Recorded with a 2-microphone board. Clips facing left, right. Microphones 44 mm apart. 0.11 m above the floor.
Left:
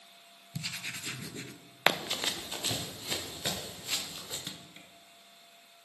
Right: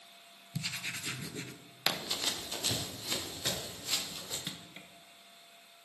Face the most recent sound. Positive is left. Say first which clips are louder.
# right 1 dB
turn(degrees=-15)  # may be behind; listen again after turning